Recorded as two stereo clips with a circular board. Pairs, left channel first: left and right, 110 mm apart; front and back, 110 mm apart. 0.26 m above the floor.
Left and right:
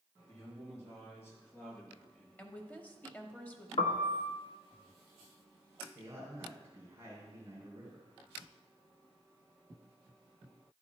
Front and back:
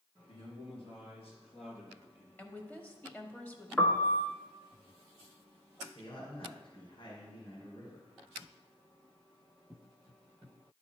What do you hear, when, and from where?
0.3 s a man speaking: 35° left, 4 m; by 2.5 s 15° left, 3.5 m
2.4 s a woman speaking: 45° left, 0.9 m
3.8 s a piano: 80° left, 0.9 m
6.0 s a man speaking: 30° right, 2 m